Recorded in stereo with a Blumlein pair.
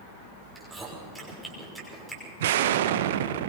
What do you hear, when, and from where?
0.6 s chewing: 5° right, 6 m
2.4 s an explosion: 55° right, 1.0 m